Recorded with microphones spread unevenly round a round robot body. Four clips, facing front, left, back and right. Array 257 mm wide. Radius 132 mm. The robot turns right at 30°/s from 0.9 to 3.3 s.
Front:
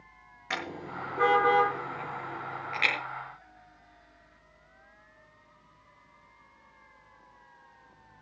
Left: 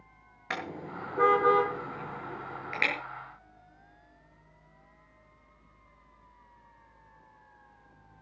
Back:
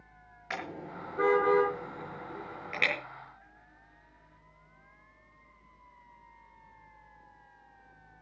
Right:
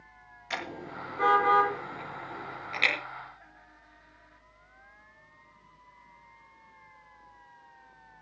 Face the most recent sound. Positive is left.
turn(degrees=150)